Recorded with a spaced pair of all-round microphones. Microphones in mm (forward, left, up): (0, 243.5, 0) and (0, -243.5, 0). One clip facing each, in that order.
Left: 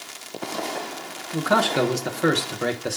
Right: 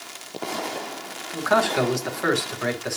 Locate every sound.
1.3 s a man speaking: 50° left (ahead or behind), 1.2 m